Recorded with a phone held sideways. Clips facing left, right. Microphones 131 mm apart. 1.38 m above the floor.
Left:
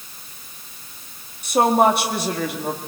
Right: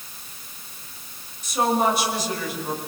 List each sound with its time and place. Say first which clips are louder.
1.4 s a woman speaking: left 5 dB; 60° left (ahead or behind), 2 m